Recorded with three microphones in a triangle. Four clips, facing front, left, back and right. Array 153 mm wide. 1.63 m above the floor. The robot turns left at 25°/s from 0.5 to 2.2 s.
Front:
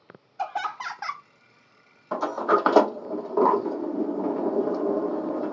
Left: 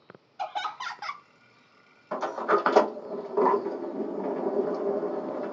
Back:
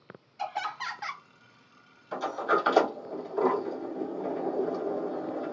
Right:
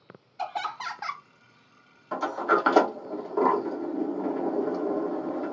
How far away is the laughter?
About 0.7 m.